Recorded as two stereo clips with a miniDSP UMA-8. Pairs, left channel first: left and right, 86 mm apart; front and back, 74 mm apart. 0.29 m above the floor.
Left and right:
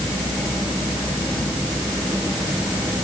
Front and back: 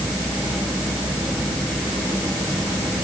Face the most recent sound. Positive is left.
No sound to turn to.